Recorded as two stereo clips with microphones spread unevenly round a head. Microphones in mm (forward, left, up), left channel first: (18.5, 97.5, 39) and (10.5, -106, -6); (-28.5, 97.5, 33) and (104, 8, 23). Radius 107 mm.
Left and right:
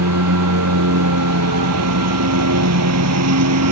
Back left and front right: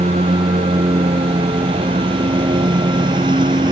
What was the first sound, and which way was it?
A lawn mower, 100° right.